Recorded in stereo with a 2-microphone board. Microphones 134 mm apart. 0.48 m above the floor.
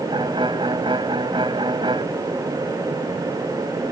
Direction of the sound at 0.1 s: 40° right (ahead or behind).